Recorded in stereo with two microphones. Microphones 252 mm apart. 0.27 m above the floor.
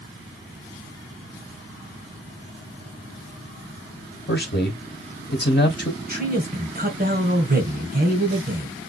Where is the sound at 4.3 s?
45° left (ahead or behind), 1.4 m.